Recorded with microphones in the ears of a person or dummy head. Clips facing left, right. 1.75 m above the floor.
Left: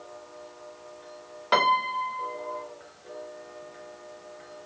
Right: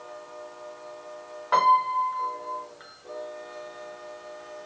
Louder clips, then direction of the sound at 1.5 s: Right 2 dB; 50° left (ahead or behind).